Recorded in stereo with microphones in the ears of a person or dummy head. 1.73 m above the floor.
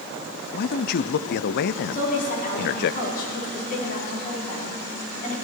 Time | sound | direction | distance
0.5 | a man speaking | 55° left (ahead or behind) | 0.5 m
1.9 | a woman speaking | 50° left (ahead or behind) | 4.5 m